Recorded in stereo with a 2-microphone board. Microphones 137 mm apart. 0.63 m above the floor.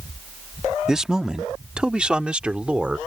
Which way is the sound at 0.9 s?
5° right (ahead or behind).